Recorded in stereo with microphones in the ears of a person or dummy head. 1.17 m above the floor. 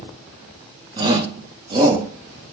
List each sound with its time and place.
1.0 s a shout: 25° right (ahead or behind), 0.5 m